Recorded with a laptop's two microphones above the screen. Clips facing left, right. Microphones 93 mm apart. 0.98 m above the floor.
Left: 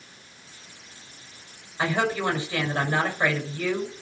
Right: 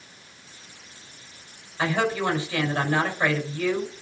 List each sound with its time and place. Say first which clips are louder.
1.8 s a woman speaking: right 1 dB; 15° left (ahead or behind), 4.5 m